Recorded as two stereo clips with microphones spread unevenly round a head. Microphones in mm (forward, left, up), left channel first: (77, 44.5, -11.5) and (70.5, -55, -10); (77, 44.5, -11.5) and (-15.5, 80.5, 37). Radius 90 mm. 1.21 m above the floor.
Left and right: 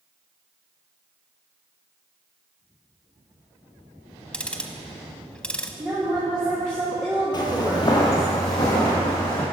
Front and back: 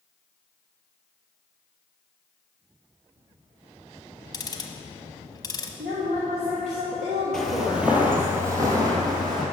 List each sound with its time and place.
4.3 s ticking: 5° left, 0.9 m
5.8 s a woman speaking: 170° right, 1.1 m
7.3 s footsteps: 90° left, 1.6 m; by 9.4 s 140° left, 3 m